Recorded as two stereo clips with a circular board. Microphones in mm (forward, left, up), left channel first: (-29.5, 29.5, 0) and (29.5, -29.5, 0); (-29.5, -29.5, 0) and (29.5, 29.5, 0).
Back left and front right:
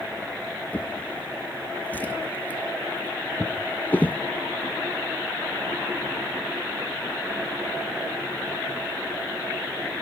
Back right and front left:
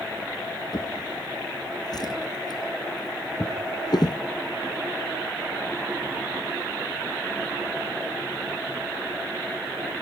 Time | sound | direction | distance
0.7 | a drawer | 160° right | 1.8 m